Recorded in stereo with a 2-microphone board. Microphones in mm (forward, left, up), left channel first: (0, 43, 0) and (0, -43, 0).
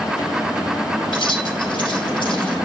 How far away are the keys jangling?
About 2.5 m.